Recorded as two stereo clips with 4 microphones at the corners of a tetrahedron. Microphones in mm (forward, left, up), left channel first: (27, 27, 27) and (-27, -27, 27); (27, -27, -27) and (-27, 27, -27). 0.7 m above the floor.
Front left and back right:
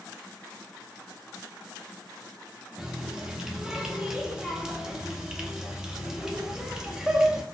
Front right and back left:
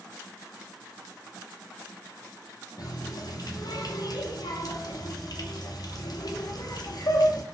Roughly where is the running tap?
Ahead right.